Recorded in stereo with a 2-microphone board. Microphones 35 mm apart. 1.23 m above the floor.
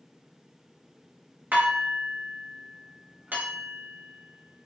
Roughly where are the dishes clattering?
Right.